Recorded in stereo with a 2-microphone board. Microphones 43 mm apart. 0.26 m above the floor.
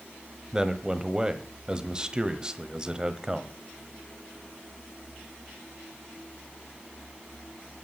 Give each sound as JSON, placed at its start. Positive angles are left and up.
{"t": 0.5, "sound": "a man speaking", "side_deg": -15, "distance_m": 1.2}